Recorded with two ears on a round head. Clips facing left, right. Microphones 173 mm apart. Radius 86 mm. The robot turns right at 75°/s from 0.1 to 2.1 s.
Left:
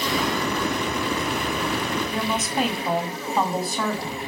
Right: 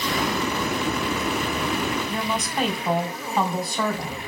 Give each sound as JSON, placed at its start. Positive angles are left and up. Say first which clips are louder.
{"t": 2.1, "sound": "a woman speaking", "louder": "left 1 dB", "side_deg": 0, "distance_m": 3.5}